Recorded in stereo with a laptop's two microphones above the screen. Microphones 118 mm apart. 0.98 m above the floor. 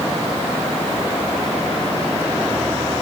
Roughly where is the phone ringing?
I don't hear a phone ringing.